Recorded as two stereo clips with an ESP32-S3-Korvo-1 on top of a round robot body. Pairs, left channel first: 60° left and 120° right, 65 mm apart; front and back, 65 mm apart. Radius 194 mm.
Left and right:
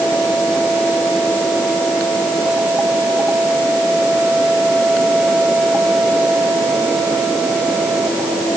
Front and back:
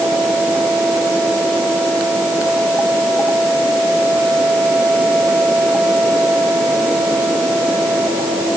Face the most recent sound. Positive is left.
No sound to turn to.